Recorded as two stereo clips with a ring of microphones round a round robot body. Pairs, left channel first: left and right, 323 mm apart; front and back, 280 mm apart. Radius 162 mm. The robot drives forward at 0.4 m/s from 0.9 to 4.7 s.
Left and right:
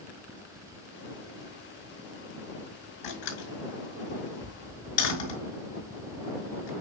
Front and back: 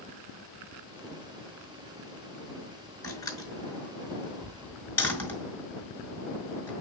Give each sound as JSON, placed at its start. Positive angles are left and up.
{"t": 3.0, "sound": "a door slam", "azimuth_deg": 75, "distance_m": 5.5}